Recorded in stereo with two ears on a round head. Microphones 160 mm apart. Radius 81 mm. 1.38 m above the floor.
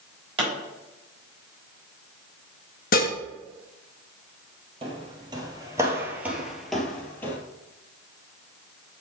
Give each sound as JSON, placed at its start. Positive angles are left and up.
{"t": 0.4, "sound": "a pop", "side_deg": -30, "distance_m": 3.0}
{"t": 2.9, "sound": "dishes clattering", "side_deg": 50, "distance_m": 1.0}
{"t": 4.8, "sound": "footsteps", "side_deg": -30, "distance_m": 1.7}